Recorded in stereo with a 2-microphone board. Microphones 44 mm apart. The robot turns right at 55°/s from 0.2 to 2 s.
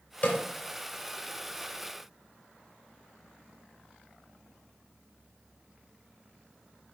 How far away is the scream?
No scream in this recording.